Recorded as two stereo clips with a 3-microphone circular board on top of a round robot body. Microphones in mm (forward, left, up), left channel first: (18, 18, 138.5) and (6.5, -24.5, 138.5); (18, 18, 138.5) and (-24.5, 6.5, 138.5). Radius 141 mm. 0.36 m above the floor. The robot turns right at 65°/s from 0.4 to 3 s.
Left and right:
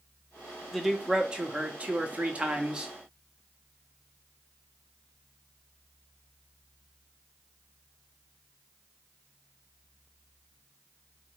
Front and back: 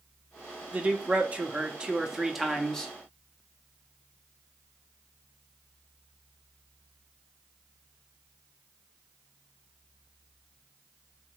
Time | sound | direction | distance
0.7 | a man speaking | 170° left | 0.9 m